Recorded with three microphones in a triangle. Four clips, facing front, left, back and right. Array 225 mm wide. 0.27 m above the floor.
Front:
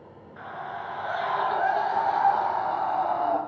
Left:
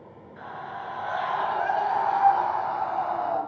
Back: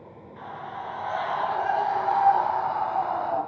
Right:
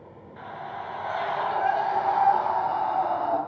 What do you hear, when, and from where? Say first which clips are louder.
0.4 s a scream: even, front 1 dB; 45° right, 4.5 m; by 3.4 s 60° right, 6 m